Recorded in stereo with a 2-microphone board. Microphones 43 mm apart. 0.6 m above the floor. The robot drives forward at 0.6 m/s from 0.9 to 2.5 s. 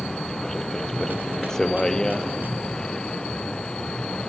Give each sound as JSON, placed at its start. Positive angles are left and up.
{"t": 0.0, "sound": "a vehicle", "side_deg": 10}